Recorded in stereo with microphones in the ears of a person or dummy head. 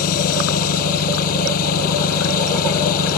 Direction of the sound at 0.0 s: 50° left (ahead or behind).